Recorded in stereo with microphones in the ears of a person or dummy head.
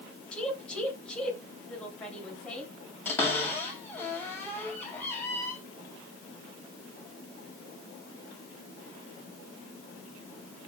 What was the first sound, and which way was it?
A woman speaking, 5° left (ahead or behind).